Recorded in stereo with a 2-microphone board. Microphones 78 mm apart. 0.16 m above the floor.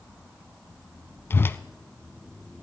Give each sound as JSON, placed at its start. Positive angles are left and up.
{"t": 1.3, "sound": "a whoosh", "side_deg": 30, "distance_m": 0.6}